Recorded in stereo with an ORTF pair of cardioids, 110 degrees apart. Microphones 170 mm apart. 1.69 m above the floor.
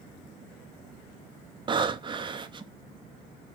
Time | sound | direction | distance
1.7 | breathing | 30° right | 0.6 m